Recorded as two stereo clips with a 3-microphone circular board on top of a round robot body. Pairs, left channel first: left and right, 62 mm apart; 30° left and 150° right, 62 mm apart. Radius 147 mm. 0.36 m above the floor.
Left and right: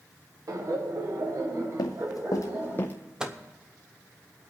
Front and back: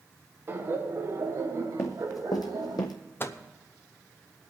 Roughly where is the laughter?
Right.